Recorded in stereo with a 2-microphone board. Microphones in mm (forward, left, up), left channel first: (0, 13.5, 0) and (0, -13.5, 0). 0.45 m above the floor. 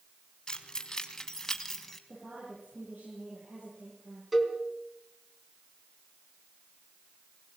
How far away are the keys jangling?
About 2.5 m.